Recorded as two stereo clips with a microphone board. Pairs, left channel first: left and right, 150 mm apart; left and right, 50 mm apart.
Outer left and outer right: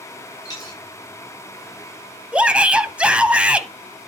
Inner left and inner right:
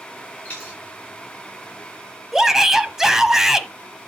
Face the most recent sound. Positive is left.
turn(degrees=-5)  # may be behind; listen again after turning